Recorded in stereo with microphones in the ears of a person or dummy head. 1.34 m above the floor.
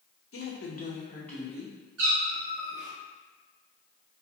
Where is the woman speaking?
65° left (ahead or behind), 0.9 m; by 1.7 s 15° right (ahead or behind), 1.1 m.